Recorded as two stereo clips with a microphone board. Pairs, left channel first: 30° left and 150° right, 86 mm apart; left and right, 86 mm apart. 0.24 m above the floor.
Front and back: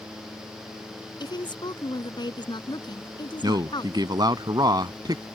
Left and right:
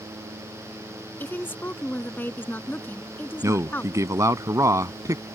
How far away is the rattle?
No rattle in this recording.